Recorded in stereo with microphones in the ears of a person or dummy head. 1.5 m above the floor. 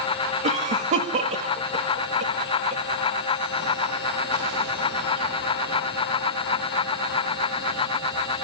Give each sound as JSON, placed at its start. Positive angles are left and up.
{"t": 0.4, "sound": "a cough", "side_deg": -35, "distance_m": 2.0}